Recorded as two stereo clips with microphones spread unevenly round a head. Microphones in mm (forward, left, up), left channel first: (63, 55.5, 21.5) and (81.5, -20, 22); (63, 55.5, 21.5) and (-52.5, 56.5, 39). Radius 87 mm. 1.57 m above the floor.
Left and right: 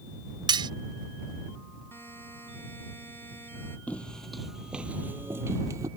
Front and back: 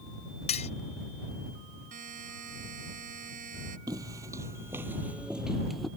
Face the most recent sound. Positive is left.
turn(degrees=-100)